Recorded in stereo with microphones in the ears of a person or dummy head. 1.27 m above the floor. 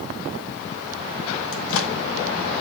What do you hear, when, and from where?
1.5 s a microwave: 75° left (ahead or behind), 0.9 m